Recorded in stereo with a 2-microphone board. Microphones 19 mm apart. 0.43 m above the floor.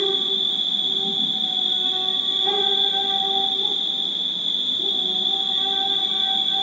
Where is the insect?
5° left (ahead or behind), 1.5 m.